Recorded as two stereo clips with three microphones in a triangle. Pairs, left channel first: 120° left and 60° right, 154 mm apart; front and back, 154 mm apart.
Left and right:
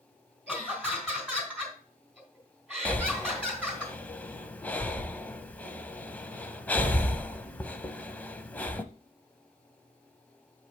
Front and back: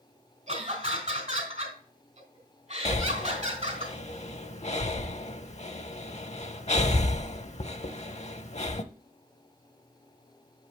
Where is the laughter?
155° right, 2.5 m.